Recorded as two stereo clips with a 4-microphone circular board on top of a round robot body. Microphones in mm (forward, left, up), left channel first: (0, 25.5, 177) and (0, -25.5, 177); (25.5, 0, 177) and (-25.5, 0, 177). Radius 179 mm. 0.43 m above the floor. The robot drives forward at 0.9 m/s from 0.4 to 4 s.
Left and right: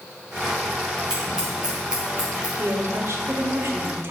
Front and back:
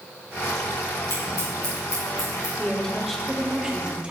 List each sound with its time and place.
1.1 s scissors: 15° right, 4.5 m; by 2.5 s 20° right, 3.5 m
2.6 s a woman speaking: 70° right, 1.8 m; by 4.1 s 120° right, 1.9 m